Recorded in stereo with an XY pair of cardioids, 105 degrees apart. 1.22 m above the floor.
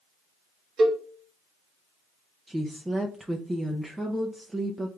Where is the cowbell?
50° right, 1.1 m.